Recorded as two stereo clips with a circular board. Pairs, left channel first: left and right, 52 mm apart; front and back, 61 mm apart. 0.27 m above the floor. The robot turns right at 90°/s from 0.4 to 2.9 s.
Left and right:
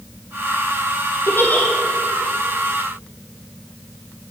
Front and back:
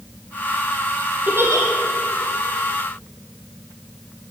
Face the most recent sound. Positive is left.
turn(degrees=-90)